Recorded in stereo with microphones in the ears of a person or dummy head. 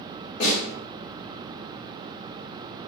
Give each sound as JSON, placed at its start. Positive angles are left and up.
{"t": 0.4, "sound": "a snare drum", "side_deg": 45, "distance_m": 2.5}